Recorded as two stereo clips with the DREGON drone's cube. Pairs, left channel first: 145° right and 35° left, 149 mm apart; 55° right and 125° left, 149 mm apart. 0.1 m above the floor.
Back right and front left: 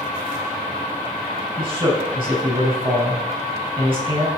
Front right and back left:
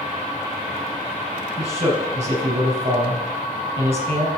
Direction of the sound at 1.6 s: 80° left.